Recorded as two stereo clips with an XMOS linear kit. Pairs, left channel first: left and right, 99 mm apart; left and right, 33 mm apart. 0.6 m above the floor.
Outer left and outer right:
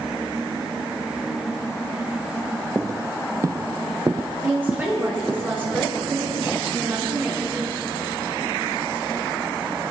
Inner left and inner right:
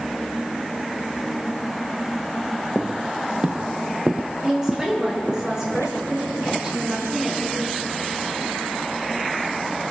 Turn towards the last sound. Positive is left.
turn(degrees=-20)  # may be behind; listen again after turning